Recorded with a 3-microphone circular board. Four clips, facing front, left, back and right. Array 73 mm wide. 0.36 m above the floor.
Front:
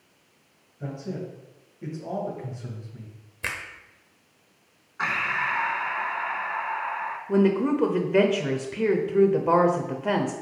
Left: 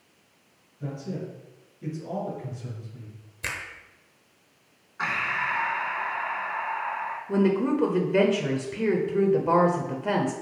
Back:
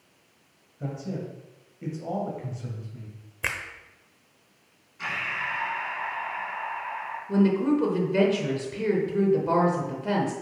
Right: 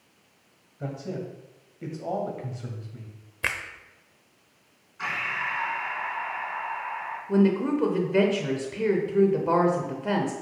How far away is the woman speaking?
About 0.8 m.